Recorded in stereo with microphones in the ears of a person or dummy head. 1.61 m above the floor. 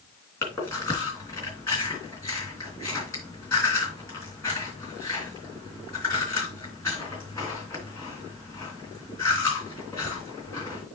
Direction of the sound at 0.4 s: 15° left (ahead or behind).